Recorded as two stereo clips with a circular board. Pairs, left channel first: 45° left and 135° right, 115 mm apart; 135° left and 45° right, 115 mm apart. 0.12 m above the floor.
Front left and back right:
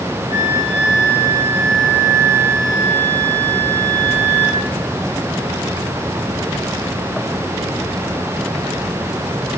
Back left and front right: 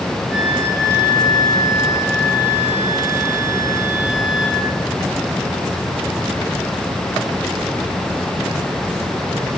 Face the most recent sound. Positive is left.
turn(degrees=70)